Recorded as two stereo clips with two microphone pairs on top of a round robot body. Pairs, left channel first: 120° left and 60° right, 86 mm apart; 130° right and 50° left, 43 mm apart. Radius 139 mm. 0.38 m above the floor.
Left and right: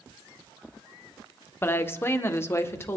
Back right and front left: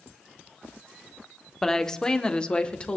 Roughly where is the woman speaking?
Behind left.